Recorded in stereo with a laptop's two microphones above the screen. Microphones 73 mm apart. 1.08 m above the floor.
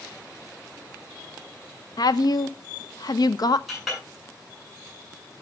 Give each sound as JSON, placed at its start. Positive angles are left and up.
{"t": 2.0, "sound": "a woman speaking", "side_deg": 60, "distance_m": 0.8}
{"t": 3.7, "sound": "a clink", "side_deg": -5, "distance_m": 8.5}